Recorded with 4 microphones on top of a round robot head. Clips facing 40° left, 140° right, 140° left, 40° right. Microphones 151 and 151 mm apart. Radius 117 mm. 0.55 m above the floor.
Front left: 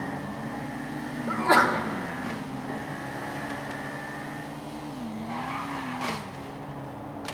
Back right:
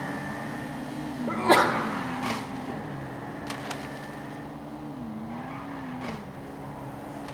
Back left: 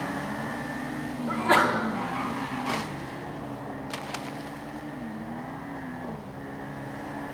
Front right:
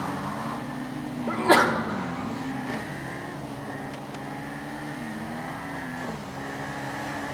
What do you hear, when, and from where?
1.3 s a sneeze: 80° right, 1.2 m